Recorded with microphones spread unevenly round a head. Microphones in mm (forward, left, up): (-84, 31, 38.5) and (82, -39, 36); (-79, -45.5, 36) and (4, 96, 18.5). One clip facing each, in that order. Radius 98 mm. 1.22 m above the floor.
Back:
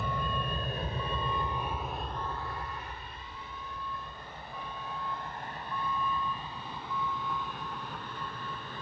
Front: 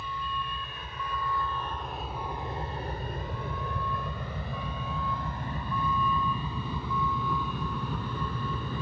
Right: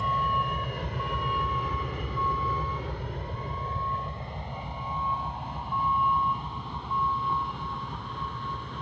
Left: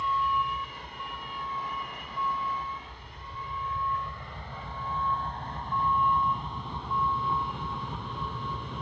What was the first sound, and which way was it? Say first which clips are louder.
A vehicle: back 3 dB, even; 160° right.